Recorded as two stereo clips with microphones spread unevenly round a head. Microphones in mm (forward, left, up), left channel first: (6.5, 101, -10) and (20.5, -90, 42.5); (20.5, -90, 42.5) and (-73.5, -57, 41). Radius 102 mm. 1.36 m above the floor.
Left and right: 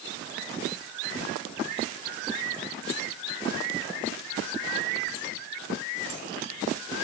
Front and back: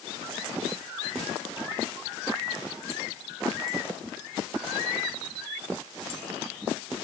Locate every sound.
Only background noise.